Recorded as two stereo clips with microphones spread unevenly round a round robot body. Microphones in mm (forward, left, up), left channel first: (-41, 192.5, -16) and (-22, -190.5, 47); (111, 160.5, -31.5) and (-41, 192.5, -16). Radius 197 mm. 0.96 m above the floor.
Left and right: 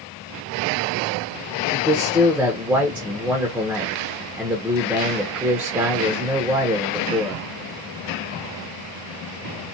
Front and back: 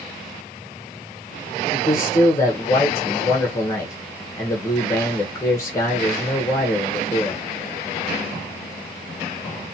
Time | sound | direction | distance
1.7 | a man speaking | 15° left | 0.8 m